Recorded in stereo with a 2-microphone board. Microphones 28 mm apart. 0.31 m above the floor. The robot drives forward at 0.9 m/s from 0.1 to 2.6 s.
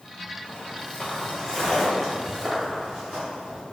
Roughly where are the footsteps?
Left.